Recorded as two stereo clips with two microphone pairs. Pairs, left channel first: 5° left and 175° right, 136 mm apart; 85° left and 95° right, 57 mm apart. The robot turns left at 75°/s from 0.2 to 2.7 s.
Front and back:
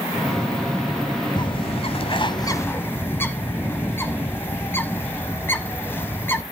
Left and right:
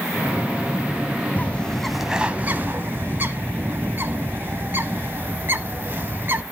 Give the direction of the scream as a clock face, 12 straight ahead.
I don't hear a scream.